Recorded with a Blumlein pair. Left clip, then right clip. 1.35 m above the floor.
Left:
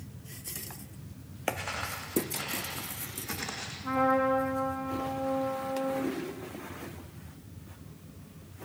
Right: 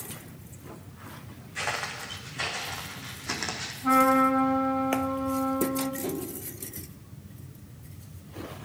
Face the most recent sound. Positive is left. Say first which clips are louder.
# right 1 dB
turn(degrees=-50)